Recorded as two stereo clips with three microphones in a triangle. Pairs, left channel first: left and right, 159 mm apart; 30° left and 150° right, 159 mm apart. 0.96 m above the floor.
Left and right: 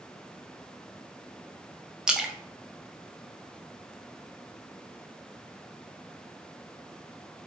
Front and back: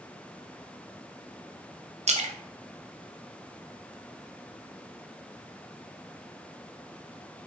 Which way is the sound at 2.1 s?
175° right.